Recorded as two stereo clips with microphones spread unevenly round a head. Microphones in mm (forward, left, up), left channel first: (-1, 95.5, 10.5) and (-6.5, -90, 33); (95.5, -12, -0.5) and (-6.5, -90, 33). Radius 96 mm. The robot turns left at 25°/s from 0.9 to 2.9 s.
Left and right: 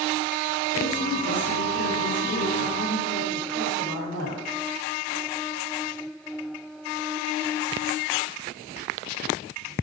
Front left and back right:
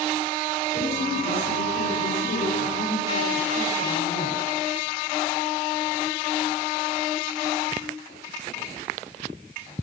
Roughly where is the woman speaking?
Left.